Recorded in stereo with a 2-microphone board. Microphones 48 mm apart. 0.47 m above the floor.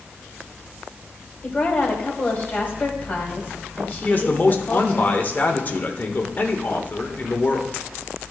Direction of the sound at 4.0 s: 40° left (ahead or behind).